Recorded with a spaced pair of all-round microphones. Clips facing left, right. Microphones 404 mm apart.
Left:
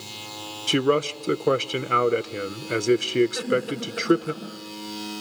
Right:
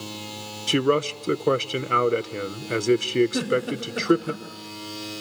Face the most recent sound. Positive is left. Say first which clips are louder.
# right 1 dB
turn(degrees=-80)